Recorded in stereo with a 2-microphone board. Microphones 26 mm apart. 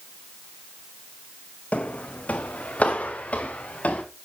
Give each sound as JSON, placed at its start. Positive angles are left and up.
{"t": 1.7, "sound": "footsteps", "side_deg": 75, "distance_m": 1.1}